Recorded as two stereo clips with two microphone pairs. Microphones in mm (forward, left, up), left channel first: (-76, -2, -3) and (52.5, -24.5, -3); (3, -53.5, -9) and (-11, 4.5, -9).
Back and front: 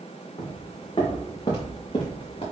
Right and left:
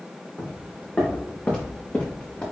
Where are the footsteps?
135° right, 3 m; by 2.4 s 145° right, 5 m.